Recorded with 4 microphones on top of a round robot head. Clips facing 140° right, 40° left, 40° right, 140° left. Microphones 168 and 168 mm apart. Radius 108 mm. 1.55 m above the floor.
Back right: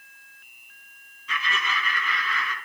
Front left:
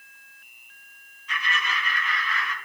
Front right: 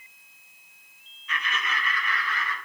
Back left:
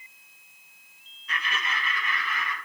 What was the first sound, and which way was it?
Laughter, 160° right.